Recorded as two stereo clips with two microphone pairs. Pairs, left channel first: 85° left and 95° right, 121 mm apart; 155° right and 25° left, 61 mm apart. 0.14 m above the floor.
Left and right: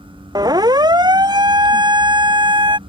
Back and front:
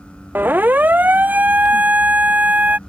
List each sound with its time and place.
0.3 s a siren: 35° right; by 2.8 s 45° right